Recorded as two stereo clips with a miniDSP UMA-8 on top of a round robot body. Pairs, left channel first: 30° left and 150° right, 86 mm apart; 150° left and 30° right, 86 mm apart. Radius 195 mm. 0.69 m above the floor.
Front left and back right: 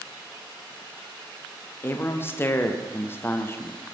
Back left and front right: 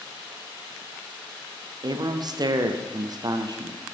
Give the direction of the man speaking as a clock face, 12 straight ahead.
1 o'clock.